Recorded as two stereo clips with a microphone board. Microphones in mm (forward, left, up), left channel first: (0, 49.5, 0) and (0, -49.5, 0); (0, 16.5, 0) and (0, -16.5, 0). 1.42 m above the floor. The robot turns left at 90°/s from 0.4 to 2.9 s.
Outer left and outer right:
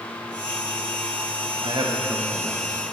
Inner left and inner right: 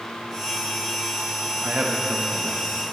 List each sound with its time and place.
1.6 s a man speaking: 115° right, 0.8 m; by 2.7 s 150° left, 0.8 m